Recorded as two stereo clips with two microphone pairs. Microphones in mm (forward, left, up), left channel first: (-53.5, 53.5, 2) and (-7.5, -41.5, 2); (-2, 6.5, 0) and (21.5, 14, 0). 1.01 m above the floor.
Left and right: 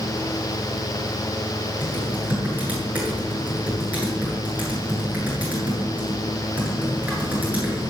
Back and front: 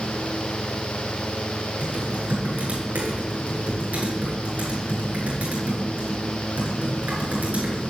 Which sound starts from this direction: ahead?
Typing on a keyboard, at 1.8 s.